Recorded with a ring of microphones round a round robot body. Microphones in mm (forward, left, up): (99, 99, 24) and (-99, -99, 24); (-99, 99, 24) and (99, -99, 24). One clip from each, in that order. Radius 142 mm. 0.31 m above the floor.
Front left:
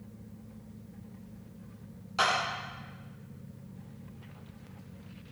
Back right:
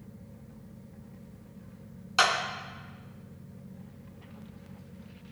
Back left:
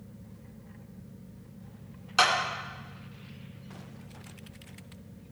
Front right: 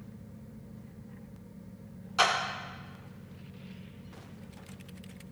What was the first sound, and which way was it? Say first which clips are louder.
A clap: back right 3 dB, back left 2 dB; 165° right.